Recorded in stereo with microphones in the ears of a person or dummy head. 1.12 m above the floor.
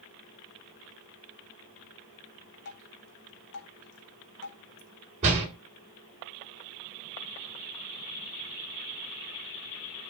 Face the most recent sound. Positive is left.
turn(degrees=-35)  # may be behind; listen again after turning